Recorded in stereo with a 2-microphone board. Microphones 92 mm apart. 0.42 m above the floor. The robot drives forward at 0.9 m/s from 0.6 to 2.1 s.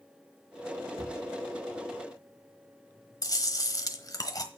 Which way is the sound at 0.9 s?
75° right (ahead or behind).